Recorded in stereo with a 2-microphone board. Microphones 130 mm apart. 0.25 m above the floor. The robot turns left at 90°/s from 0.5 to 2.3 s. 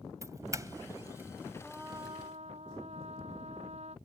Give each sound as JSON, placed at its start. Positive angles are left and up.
{"t": 0.2, "sound": "a doorbell", "side_deg": -25}
{"t": 1.6, "sound": "a trumpet", "azimuth_deg": 5}